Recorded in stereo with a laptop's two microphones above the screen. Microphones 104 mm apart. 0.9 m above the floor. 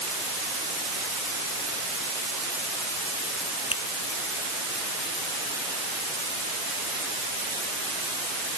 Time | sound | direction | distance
3.7 | a finger snap | 65° left (ahead or behind) | ?